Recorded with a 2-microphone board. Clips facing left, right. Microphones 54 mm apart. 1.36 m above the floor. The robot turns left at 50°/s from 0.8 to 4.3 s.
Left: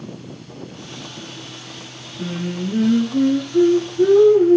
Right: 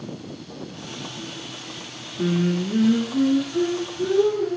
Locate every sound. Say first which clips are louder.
2.2 s singing: right 4 dB; 155° right, 8 m; by 4.6 s 95° left, 8 m